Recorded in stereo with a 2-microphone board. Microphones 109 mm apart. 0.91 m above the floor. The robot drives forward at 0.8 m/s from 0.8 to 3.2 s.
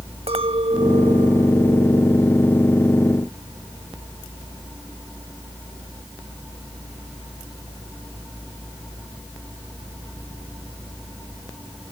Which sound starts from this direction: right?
A clink, at 0.3 s.